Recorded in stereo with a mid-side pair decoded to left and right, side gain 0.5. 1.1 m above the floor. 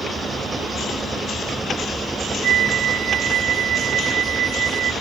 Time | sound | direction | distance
0.0 | an engine running | 20° right | ?
2.4 | a flute | 65° right | ?